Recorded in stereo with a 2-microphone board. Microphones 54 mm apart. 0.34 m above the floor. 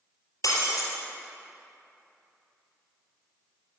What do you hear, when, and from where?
0.4 s breaking glass: 85° left, 3 m